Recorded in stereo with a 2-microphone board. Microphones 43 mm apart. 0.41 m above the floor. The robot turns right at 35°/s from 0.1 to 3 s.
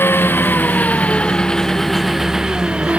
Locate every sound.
0.0 s an engine running: 115° left; by 3.0 s 145° right